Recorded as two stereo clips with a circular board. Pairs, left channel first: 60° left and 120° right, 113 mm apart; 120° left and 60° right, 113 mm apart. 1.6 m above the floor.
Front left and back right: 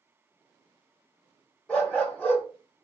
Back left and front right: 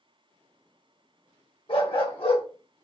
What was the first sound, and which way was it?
A dog barking, 140° left.